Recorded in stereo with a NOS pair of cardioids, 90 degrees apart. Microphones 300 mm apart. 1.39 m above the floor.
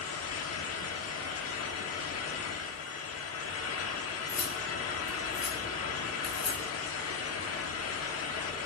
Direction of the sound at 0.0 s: 55° left.